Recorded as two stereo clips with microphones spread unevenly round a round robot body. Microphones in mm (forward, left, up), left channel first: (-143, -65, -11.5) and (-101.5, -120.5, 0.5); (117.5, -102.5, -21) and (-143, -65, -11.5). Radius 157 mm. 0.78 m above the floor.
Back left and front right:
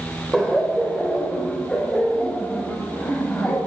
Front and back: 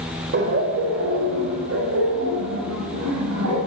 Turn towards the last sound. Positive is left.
turn(degrees=-165)